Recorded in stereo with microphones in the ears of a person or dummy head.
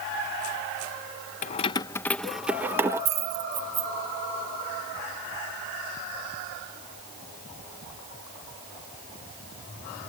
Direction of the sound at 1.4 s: 40° left (ahead or behind).